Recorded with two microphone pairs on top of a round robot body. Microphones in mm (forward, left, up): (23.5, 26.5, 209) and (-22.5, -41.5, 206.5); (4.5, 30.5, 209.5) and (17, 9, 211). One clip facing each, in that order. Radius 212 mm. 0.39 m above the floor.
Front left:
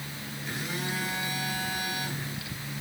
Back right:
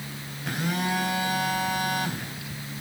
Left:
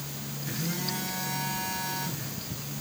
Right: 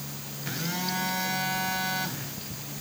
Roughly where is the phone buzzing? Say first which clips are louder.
Back right 7 dB, right 2 dB; right.